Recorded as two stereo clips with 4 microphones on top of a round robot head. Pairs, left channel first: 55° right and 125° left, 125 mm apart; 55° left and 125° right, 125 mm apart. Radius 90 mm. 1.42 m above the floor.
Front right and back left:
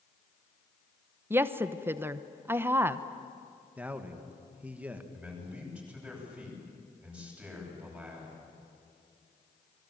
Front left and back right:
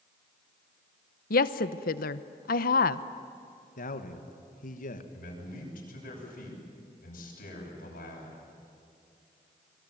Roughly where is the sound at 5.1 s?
Ahead left.